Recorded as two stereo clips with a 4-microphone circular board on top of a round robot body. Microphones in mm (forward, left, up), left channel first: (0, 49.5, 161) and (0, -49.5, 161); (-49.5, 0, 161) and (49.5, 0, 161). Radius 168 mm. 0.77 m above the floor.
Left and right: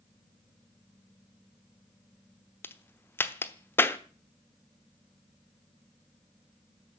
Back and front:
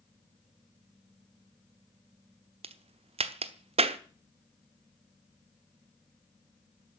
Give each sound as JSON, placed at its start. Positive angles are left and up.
{"t": 2.6, "sound": "a crack", "azimuth_deg": 20, "distance_m": 1.0}